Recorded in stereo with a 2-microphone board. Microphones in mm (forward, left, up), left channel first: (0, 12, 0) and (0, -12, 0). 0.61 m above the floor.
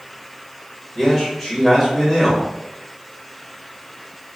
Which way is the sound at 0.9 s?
20° left (ahead or behind).